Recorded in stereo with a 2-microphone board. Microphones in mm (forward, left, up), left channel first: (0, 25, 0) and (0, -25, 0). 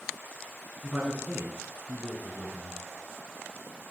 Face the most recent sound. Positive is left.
turn(degrees=-30)  # may be behind; listen again after turning